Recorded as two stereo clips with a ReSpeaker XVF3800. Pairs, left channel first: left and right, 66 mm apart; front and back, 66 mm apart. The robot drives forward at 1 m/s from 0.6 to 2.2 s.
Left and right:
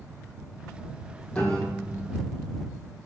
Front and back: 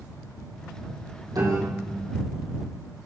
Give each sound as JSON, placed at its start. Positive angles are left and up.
{"t": 1.3, "sound": "a piano", "azimuth_deg": 165, "distance_m": 5.0}